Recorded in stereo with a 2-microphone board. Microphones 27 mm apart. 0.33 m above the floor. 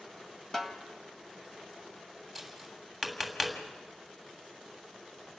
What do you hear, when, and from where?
0.5 s a snare drum: 15° left (ahead or behind), 1.5 m
2.4 s tapping: 5° left (ahead or behind), 2.5 m